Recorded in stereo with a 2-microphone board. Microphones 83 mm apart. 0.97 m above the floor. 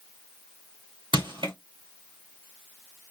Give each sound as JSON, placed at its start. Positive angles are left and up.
{"t": 1.1, "sound": "crushing", "side_deg": -70, "distance_m": 1.2}